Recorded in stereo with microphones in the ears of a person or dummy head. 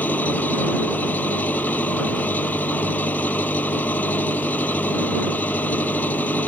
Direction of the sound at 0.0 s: 5° left (ahead or behind).